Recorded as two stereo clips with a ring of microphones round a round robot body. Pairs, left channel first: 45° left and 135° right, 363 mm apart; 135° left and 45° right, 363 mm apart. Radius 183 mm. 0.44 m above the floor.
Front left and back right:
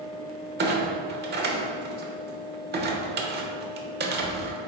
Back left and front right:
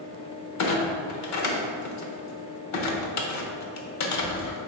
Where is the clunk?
165° left, 1.0 m.